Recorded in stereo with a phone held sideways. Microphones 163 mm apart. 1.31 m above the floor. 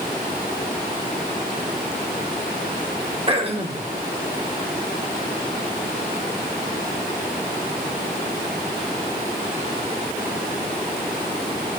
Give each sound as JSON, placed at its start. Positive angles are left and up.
{"t": 3.3, "sound": "throat clearing", "side_deg": -35, "distance_m": 3.0}